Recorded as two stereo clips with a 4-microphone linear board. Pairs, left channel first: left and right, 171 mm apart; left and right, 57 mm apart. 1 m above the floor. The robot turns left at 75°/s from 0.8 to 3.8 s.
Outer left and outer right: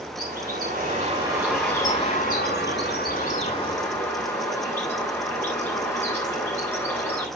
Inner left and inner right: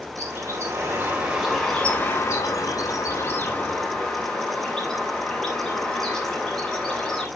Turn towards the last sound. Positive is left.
turn(degrees=15)